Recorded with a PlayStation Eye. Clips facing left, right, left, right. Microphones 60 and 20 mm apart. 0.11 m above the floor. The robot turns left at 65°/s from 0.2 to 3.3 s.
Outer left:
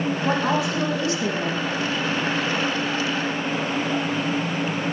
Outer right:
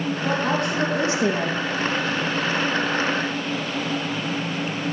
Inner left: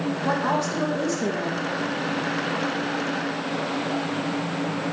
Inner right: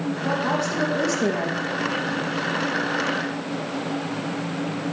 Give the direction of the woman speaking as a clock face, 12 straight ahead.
11 o'clock.